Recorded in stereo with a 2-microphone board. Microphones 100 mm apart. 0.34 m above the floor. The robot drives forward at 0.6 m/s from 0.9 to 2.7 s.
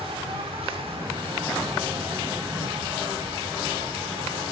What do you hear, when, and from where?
0.0 s an insect: 70° right (ahead or behind), 5.5 m